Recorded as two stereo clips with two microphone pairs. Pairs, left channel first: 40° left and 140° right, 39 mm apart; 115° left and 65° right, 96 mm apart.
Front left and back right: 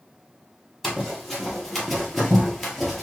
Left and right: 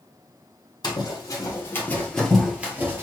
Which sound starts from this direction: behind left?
Running footsteps, at 0.8 s.